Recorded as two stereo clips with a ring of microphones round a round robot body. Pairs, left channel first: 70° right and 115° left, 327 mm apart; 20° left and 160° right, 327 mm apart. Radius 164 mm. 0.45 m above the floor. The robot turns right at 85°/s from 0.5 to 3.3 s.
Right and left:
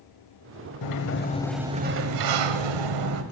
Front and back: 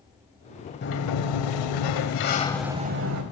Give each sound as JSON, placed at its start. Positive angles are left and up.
{"t": 0.8, "sound": "a sliding door", "azimuth_deg": -40, "distance_m": 0.9}